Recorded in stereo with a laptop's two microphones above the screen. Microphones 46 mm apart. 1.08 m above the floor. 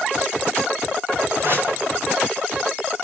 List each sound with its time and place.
1.4 s a whoosh: 50° right (ahead or behind), 2.5 m